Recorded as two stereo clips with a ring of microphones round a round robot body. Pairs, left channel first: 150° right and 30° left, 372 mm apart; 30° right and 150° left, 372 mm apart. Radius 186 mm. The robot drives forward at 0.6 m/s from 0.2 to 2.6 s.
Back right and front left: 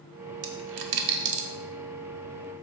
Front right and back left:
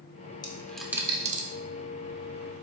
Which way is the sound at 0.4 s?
50° left.